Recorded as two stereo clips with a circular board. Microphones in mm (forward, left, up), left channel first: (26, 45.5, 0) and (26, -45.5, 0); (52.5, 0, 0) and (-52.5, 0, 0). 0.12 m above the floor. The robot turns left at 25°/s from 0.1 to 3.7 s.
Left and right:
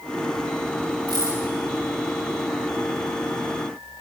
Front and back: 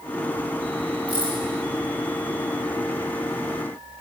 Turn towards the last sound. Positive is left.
turn(degrees=160)